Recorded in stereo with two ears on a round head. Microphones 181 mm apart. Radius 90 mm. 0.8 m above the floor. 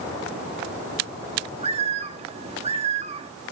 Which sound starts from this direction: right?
A bird, at 1.6 s.